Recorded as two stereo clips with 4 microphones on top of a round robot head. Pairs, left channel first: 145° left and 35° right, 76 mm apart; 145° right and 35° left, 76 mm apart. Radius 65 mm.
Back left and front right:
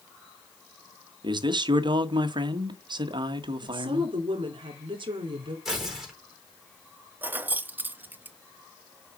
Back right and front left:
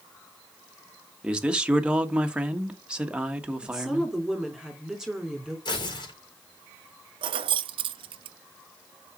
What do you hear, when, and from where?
1.2 s a man speaking: 40° right, 1.6 m
3.6 s a woman speaking: 45° right, 2.5 m
5.7 s tearing paper: 125° right, 4.5 m
7.2 s keys jangling: 30° left, 0.5 m